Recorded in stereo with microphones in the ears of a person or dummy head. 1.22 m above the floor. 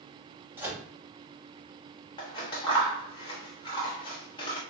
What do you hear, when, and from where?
0.6 s a microwave: 10° right (ahead or behind), 0.8 m
2.2 s scissors: 25° left (ahead or behind), 0.9 m